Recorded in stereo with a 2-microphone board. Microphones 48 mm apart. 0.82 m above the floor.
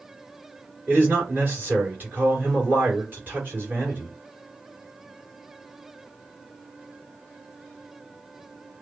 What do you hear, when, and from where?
0.9 s a man speaking: 40° right (ahead or behind), 2.5 m